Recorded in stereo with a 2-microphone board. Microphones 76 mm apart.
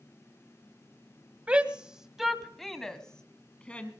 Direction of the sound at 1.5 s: 20° right (ahead or behind).